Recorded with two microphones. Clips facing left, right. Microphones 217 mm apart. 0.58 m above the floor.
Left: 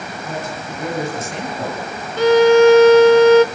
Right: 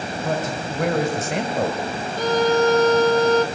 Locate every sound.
0.2 s a man speaking: 75° right (ahead or behind), 3.5 m; by 1.8 s 60° right (ahead or behind), 3 m
2.2 s a violin: 75° left (ahead or behind), 0.6 m